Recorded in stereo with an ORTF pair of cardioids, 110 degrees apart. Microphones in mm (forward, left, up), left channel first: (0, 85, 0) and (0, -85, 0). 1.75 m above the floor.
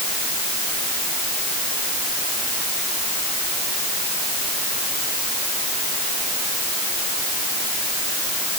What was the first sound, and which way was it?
Only background noise.